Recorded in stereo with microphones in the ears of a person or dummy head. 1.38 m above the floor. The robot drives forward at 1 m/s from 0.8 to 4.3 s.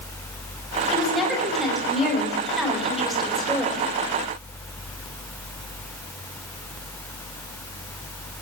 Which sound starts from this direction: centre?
A woman speaking, at 0.9 s.